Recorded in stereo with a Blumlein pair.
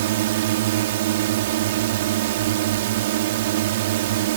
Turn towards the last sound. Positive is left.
turn(degrees=-55)